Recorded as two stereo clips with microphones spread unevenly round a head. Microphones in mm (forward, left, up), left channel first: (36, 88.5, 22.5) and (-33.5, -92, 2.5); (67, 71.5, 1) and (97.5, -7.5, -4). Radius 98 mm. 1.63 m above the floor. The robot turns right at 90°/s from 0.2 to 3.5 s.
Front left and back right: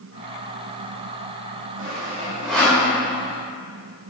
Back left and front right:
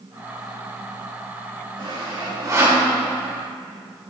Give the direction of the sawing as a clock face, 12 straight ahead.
3 o'clock.